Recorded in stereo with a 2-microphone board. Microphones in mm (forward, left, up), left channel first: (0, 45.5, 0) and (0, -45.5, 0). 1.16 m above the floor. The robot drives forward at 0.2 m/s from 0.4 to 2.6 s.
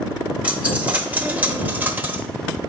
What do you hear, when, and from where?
0.4 s a dropped coin: 15° right (ahead or behind), 1.0 m; by 2.2 s 20° right (ahead or behind), 0.7 m